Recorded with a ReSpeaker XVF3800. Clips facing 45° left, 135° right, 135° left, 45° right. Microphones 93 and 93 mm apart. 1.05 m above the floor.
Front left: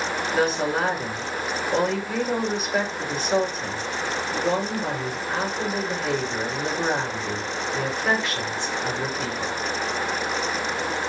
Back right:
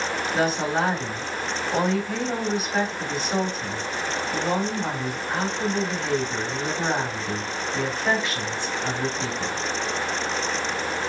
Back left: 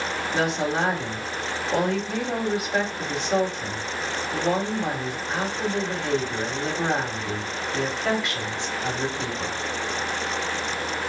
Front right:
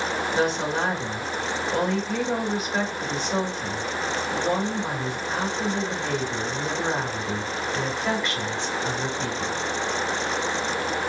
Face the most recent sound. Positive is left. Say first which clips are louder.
# front left 1 dB, back left 1 dB
turn(degrees=135)